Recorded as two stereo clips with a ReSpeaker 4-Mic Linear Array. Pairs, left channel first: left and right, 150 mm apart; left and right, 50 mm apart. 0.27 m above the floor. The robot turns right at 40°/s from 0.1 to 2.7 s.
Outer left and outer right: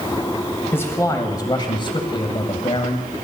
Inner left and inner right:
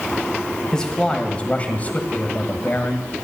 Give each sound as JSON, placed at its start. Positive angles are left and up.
{"t": 0.7, "sound": "a man speaking", "azimuth_deg": 25, "distance_m": 1.2}